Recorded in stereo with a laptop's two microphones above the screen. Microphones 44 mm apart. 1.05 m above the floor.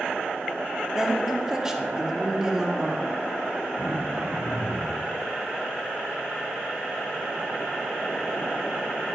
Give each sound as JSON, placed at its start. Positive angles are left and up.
{"t": 0.9, "sound": "a woman speaking", "side_deg": -15, "distance_m": 1.7}
{"t": 3.8, "sound": "throat clearing", "side_deg": -80, "distance_m": 4.5}